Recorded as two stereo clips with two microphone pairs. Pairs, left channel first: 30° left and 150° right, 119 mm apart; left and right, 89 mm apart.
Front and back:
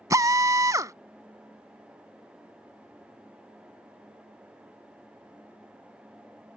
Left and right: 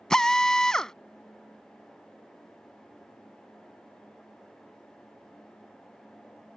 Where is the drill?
170° left.